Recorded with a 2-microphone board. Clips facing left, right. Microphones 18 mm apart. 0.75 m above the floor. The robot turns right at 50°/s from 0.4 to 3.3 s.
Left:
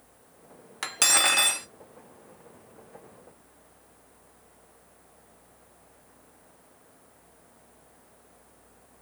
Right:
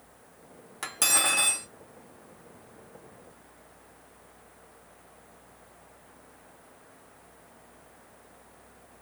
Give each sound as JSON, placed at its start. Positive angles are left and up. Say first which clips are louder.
{"t": 0.8, "sound": "cutlery clinking", "louder": "left 3 dB", "azimuth_deg": 25, "distance_m": 0.5}